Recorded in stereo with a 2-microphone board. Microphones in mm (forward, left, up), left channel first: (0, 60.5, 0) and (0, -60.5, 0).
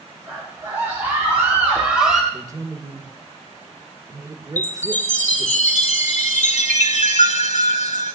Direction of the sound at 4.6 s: 75° left (ahead or behind).